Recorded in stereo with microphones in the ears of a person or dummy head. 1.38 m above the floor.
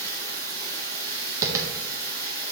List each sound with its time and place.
0.0 s running water: 15° left (ahead or behind), 1.9 m
1.4 s tapping: 20° right (ahead or behind), 0.7 m